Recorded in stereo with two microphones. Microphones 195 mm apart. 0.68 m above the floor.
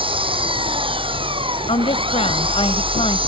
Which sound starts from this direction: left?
A woman speaking, at 1.7 s.